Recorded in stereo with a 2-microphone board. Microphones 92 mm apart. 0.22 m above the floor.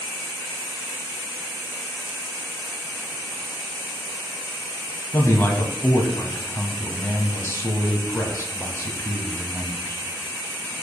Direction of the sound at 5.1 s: 30° left (ahead or behind).